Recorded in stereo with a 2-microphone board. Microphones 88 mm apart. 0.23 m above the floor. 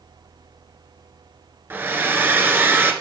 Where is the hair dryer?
25° right (ahead or behind), 1.3 m.